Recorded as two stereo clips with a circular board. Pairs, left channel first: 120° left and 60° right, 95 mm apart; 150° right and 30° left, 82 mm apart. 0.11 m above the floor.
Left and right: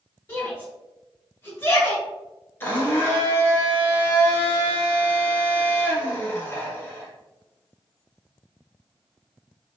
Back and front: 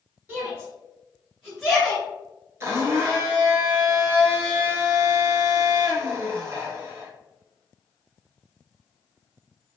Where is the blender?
65° left, 0.8 m.